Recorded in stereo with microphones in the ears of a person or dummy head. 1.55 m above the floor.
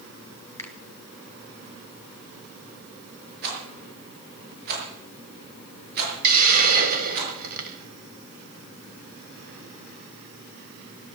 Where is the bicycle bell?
No bicycle bell in this recording.